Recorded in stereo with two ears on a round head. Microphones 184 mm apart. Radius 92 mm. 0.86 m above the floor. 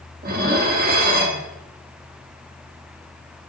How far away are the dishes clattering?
About 0.9 m.